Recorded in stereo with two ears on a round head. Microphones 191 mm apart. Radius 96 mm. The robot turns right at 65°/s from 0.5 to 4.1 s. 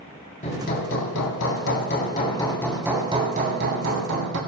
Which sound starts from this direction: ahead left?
Hammering, at 0.4 s.